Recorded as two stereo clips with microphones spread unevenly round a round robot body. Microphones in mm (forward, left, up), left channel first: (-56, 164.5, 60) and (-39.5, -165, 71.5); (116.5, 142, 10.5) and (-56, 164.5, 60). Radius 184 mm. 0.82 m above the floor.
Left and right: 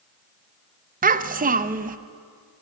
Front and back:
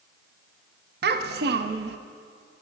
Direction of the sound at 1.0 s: 150° right.